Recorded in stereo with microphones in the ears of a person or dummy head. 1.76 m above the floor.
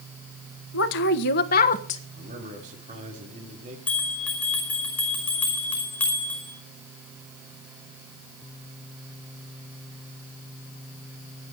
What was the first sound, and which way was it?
A woman speaking, 75° left (ahead or behind).